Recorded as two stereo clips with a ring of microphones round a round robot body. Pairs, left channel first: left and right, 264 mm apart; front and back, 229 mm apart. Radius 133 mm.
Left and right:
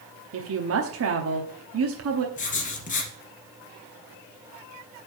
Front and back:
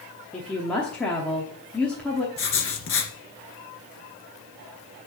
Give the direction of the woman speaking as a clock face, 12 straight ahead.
3 o'clock.